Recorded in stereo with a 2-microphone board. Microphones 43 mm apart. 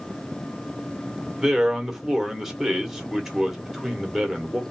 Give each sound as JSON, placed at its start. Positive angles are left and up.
{"t": 1.4, "sound": "a man speaking", "side_deg": -5, "distance_m": 1.0}